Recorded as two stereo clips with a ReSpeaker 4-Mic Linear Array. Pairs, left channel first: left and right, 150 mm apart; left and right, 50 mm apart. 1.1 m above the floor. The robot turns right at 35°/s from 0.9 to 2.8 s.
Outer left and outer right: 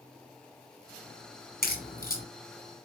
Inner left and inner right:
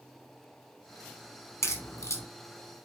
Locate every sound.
1.6 s a crack: 85° left, 4 m; by 2.2 s 75° left (ahead or behind), 4 m